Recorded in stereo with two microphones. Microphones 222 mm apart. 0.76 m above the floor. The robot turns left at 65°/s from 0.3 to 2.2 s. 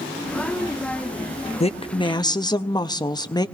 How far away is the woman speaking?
About 0.6 m.